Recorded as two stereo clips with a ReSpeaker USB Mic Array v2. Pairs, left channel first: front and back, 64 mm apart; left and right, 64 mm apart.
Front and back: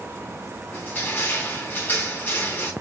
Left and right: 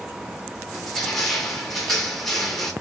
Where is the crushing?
5° left, 1.0 m.